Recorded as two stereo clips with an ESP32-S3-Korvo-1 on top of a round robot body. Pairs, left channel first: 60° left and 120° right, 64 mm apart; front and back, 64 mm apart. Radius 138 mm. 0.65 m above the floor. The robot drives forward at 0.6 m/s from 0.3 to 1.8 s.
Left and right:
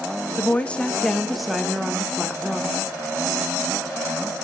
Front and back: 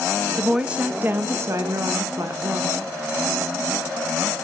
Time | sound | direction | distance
0.4 | a woman speaking | 90° left | 0.8 m